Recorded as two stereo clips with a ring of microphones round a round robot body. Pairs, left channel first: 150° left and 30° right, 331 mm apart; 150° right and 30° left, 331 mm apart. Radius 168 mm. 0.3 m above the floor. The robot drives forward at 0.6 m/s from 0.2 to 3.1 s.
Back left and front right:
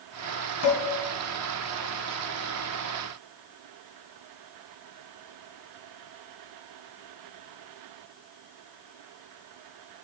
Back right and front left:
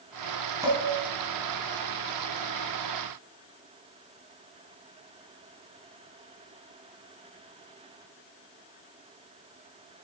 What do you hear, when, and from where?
0.6 s dishes clattering: 110° left, 1.7 m; by 0.8 s 115° left, 1.8 m